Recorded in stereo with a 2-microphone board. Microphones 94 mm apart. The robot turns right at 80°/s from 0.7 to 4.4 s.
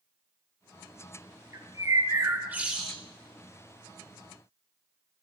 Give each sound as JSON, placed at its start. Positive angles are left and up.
{"t": 1.5, "sound": "a bird", "azimuth_deg": -110, "distance_m": 1.2}